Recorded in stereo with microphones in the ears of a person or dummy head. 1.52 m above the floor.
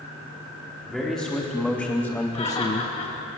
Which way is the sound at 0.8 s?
Centre (ahead or behind).